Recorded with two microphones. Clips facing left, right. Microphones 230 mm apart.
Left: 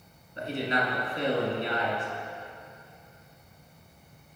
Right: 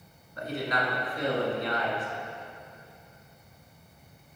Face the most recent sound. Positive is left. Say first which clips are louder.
# left 2 dB
turn(degrees=25)  # may be behind; listen again after turning